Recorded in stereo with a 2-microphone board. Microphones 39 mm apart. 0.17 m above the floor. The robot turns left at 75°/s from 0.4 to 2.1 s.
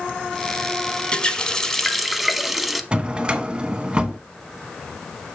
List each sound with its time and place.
1.1 s a running tap: 25° left (ahead or behind), 0.7 m; by 2.8 s centre (ahead or behind), 0.7 m
2.9 s a drawer: 25° right (ahead or behind), 0.8 m